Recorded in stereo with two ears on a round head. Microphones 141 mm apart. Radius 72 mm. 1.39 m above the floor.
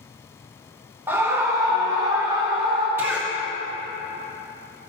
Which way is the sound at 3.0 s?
15° right (ahead or behind).